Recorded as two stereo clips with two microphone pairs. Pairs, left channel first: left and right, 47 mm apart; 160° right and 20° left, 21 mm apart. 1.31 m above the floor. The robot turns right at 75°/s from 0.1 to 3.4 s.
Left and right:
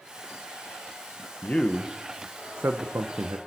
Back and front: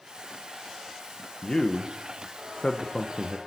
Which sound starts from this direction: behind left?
A man speaking, at 1.4 s.